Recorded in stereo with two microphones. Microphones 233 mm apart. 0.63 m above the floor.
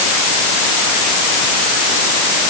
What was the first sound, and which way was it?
Only background noise.